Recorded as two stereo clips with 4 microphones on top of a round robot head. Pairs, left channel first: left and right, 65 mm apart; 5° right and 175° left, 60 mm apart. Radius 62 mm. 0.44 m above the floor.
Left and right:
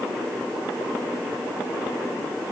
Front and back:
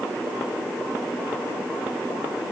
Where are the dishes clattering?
I don't hear dishes clattering.